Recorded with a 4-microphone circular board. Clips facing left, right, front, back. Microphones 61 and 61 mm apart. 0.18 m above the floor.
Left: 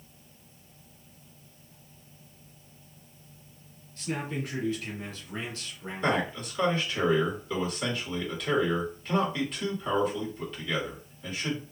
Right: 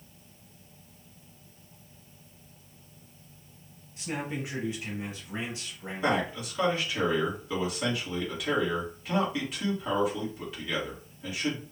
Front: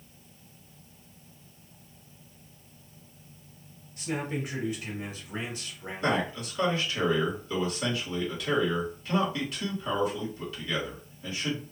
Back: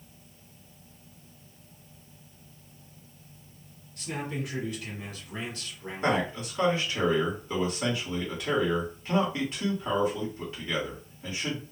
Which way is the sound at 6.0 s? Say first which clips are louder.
Even, back 1 dB; 160° right.